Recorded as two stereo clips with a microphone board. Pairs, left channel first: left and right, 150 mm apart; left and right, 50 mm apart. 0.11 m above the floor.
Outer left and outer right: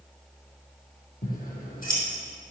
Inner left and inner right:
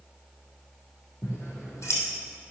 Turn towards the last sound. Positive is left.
turn(degrees=70)  # may be behind; listen again after turning